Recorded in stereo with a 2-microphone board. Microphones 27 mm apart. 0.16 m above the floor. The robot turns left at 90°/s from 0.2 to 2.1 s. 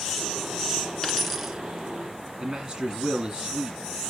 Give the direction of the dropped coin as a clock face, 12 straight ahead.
11 o'clock.